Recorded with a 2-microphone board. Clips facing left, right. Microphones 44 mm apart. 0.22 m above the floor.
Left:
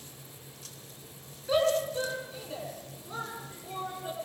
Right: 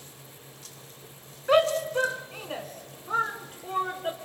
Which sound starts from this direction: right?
A shout, at 1.5 s.